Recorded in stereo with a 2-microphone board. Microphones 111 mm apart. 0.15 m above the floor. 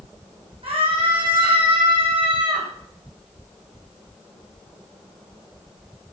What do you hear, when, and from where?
0.6 s a scream: 55° right (ahead or behind), 7 m; by 2.7 s 50° right (ahead or behind), 6 m